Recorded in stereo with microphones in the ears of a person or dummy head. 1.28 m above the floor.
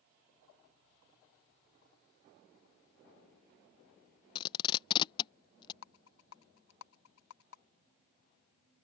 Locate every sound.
4.3 s tape being pulled: 30° left (ahead or behind)
5.8 s a rattle: 80° left